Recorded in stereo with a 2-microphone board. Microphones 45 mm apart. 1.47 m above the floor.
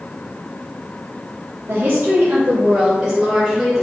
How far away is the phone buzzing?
I don't hear a phone buzzing.